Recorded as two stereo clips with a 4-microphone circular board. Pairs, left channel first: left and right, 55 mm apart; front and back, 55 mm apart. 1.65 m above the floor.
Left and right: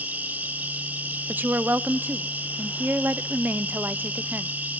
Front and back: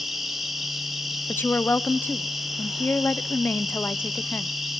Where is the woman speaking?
45° right, 0.6 m.